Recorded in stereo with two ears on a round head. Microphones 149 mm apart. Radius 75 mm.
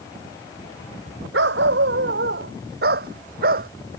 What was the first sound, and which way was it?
A dog barking, 75° right (ahead or behind).